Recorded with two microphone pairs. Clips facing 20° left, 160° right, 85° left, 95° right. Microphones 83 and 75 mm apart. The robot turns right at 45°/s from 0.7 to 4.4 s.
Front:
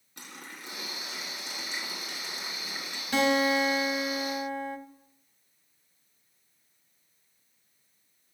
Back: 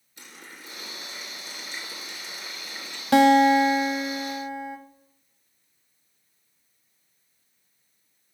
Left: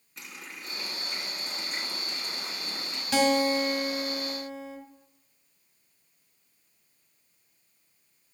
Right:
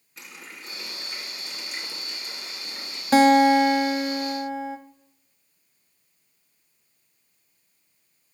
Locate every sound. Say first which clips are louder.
0.2 s a running tap: front 1 dB, even; 10° right, 3 m; by 3.0 s 95° left, 3 m
3.1 s a guitar: back 9 dB, right 9 dB; 145° right, 0.9 m; by 4.8 s 90° right, 0.9 m